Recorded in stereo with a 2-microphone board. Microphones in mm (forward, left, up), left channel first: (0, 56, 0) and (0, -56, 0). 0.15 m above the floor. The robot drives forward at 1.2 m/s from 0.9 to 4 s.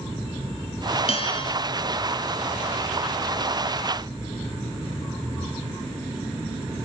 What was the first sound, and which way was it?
A bell, 60° left (ahead or behind).